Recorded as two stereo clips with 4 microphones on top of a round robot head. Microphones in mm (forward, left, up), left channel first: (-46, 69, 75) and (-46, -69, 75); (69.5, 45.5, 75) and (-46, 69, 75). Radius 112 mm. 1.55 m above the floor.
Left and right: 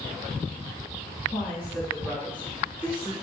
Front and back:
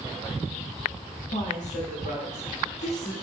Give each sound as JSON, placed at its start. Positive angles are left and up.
{"t": 1.3, "sound": "a woman speaking", "azimuth_deg": 5, "distance_m": 1.6}